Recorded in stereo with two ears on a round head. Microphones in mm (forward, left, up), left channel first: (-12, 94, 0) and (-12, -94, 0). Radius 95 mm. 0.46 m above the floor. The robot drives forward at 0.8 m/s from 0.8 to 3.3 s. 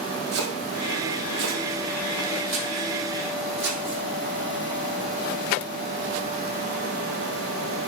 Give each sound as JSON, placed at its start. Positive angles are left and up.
{"t": 0.3, "sound": "chopping", "side_deg": -85, "distance_m": 3.0}